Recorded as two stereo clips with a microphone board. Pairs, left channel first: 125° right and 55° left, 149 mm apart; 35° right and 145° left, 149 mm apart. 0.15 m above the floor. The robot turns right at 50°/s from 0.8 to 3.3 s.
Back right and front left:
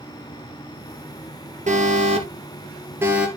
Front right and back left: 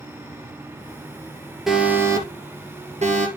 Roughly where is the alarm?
Ahead left.